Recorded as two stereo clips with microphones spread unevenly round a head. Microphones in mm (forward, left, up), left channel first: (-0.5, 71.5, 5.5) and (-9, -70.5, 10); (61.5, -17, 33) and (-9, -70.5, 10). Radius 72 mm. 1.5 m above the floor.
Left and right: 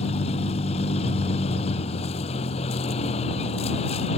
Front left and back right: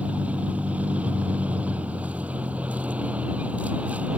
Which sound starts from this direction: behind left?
A vehicle, at 0.0 s.